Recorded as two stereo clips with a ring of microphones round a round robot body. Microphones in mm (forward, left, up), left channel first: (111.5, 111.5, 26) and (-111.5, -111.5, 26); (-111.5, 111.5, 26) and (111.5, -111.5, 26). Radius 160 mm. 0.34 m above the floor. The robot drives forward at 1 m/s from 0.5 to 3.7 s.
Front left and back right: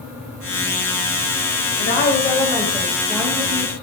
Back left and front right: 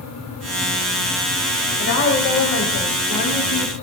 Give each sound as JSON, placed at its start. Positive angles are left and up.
{"t": 1.8, "sound": "a woman speaking", "azimuth_deg": 90, "distance_m": 1.7}